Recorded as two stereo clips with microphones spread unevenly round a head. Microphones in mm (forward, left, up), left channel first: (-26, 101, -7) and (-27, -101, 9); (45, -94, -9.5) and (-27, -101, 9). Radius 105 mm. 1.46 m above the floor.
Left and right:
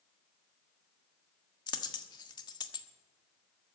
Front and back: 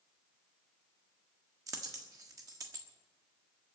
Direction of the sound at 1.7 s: 160° left.